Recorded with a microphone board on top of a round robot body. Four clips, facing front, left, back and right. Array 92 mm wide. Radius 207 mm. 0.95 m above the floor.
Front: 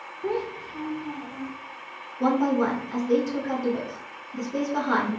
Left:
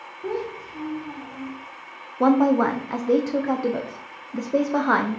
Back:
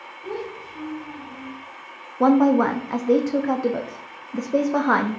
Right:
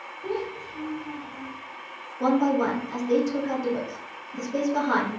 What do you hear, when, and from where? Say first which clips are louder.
0.2 s a child speaking: left 2 dB, front 3 dB; 25° left, 0.7 m
2.2 s a woman speaking: left 4 dB, back 6 dB; 140° left, 0.6 m